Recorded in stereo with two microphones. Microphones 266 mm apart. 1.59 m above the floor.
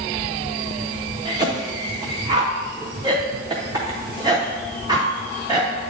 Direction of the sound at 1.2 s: 15° right (ahead or behind).